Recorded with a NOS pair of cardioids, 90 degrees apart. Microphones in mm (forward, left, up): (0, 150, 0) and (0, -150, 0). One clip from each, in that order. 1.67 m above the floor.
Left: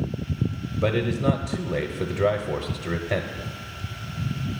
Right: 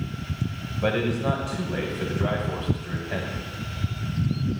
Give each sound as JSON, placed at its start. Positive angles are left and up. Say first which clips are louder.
{"t": 0.8, "sound": "a man speaking", "louder": "left 1 dB", "azimuth_deg": 65, "distance_m": 0.8}